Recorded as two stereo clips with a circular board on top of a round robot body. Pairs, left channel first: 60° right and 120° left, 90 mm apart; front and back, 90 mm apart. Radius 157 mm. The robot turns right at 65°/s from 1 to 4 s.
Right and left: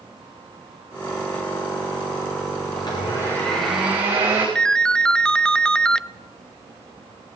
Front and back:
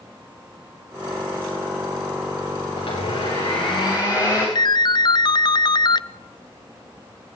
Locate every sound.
2.8 s a blender: 30° right, 9.5 m; by 4.5 s 50° left, 9.5 m
4.5 s a ringtone: 20° left, 0.7 m